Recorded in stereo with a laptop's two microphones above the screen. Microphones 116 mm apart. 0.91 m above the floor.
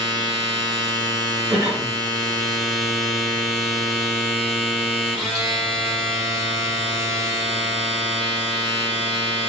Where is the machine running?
5° left (ahead or behind), 1.8 m.